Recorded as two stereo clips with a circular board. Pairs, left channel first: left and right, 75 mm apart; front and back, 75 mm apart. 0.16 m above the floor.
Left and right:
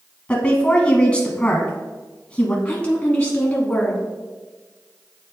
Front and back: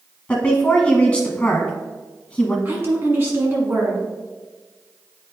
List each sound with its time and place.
0.3 s a woman speaking: 45° left, 1.3 m
2.6 s a woman speaking: 150° left, 1.2 m